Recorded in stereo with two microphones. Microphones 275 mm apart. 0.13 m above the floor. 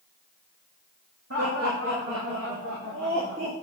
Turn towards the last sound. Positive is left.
turn(degrees=-50)  # may be behind; listen again after turning